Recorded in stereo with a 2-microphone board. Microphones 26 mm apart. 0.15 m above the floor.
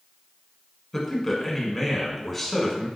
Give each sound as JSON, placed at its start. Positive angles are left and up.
{"t": 0.9, "sound": "a man speaking", "side_deg": 5, "distance_m": 1.1}